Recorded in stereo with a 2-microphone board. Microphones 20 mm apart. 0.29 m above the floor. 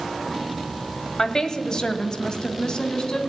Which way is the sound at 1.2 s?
40° left (ahead or behind).